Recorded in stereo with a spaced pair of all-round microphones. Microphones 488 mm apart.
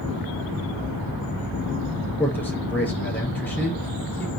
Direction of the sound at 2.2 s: 5° left (ahead or behind).